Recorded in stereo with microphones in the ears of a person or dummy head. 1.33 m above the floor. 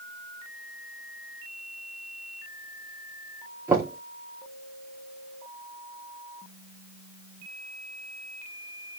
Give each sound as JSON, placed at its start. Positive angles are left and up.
{"t": 3.7, "sound": "knocking", "side_deg": -20, "distance_m": 2.5}